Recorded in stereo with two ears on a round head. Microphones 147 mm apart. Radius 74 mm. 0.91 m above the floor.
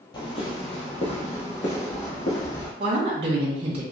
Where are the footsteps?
30° left (ahead or behind), 1.0 m; by 2.7 s 50° left (ahead or behind), 2.0 m.